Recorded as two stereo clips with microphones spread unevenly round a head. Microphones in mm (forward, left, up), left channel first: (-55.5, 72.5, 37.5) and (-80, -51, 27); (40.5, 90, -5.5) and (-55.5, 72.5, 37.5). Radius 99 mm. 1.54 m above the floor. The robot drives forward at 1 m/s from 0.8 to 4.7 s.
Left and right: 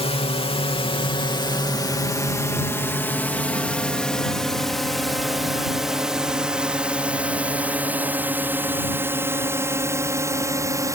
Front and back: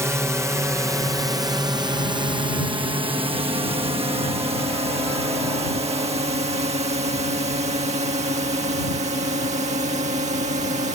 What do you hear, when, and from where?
0.0 s a drone: 120° left; by 10.9 s 165° right